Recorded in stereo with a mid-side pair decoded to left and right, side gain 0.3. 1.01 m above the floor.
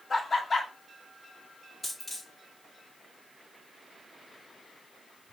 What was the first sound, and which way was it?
Laughter, 50° left.